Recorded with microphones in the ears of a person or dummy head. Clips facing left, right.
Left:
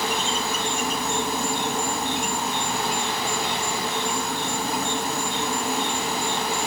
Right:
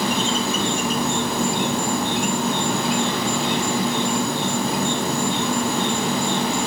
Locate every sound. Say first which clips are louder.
0.0 s an insect: right 5 dB; 50° right (ahead or behind)